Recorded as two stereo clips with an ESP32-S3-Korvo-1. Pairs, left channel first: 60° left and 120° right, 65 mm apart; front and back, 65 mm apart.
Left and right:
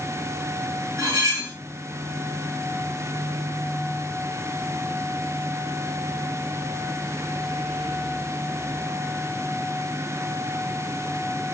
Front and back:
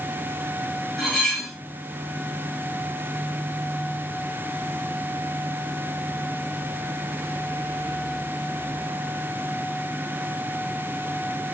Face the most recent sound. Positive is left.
turn(degrees=-85)